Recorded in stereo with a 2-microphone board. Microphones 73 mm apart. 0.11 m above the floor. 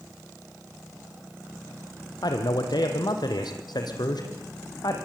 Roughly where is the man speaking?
Left.